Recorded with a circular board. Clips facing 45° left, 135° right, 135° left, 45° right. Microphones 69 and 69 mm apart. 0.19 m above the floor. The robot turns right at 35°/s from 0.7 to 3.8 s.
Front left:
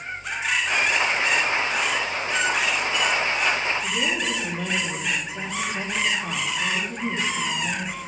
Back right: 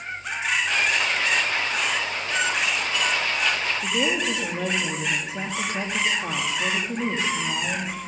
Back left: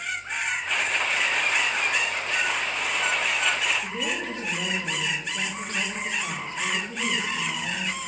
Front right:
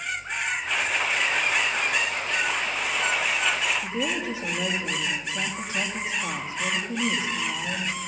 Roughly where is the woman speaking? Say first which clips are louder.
Back right 1 dB, front right 2 dB; behind right.